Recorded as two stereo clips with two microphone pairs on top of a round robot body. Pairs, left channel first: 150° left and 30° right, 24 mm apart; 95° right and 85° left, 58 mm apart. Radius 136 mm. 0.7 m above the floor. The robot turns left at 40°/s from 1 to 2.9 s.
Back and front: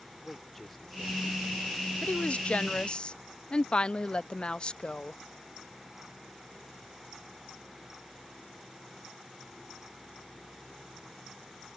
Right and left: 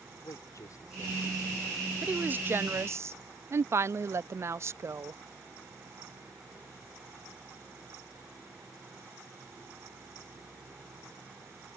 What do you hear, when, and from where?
0.2 s a man speaking: 125° right; by 1.9 s 160° right
2.0 s a woman speaking: 145° left; by 5.2 s 110° left